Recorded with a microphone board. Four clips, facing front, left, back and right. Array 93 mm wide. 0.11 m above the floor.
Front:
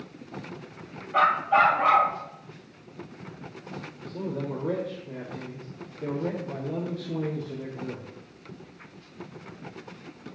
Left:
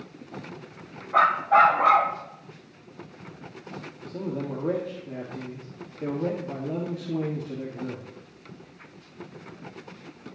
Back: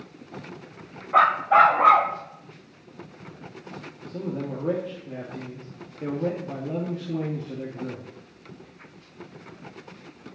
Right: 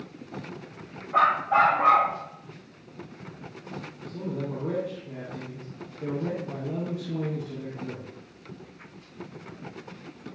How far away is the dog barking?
About 1.9 m.